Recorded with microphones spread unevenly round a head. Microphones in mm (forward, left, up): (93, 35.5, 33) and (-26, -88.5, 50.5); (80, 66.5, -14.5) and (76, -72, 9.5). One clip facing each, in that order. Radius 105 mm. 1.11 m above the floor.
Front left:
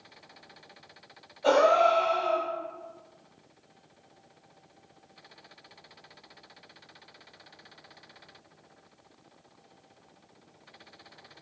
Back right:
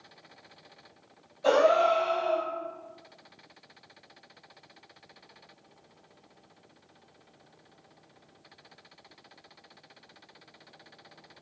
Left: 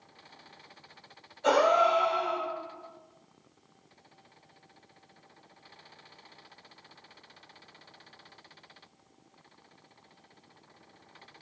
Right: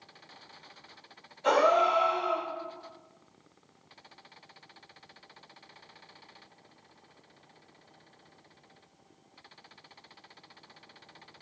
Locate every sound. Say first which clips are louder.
1.4 s a gasp: even, left 1 dB; 140° left, 1.8 m